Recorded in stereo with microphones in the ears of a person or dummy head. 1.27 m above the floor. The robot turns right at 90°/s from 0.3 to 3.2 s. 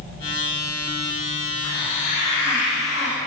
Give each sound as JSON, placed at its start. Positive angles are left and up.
{"t": 1.6, "sound": "a hiss", "azimuth_deg": 10, "distance_m": 2.5}